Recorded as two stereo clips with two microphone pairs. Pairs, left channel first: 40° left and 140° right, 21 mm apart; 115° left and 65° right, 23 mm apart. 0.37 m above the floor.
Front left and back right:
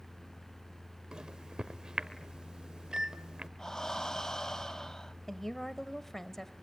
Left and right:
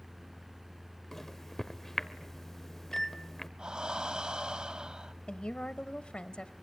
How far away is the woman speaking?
About 1.5 m.